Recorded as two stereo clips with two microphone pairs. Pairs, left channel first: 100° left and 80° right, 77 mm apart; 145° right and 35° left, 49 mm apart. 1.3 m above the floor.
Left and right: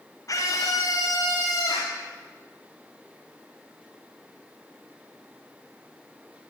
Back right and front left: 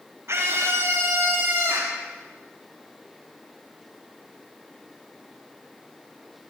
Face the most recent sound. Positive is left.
turn(degrees=80)